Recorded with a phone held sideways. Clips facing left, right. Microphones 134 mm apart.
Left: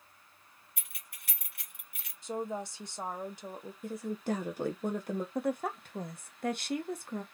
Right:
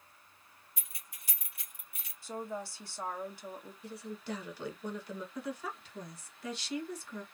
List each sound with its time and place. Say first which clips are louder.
0.8 s keys jangling: left 2 dB; 65° left (ahead or behind), 1.5 m
2.2 s a woman speaking: left 4 dB; 20° left (ahead or behind), 1.0 m
3.8 s a woman speaking: left 8 dB; 50° left (ahead or behind), 0.7 m
5.3 s a woman speaking: left 7 dB; 55° left (ahead or behind), 1.1 m